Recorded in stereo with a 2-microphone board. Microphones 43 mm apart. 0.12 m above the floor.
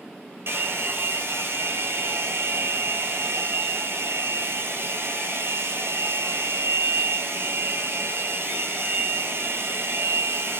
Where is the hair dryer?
60° right (ahead or behind), 1.0 m.